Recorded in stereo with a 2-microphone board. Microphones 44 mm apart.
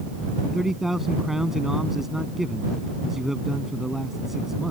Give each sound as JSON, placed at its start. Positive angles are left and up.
{"t": 0.5, "sound": "a man speaking", "side_deg": -10}